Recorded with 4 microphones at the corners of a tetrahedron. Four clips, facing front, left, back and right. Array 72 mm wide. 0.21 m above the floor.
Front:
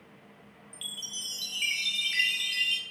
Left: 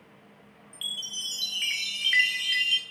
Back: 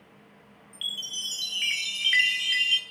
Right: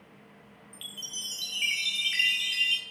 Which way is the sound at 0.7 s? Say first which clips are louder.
Left 6 dB, back 6 dB; 140° left.